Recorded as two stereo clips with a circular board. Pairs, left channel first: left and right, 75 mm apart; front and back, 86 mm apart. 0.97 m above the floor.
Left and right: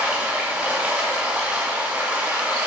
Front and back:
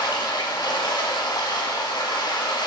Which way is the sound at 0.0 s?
20° right.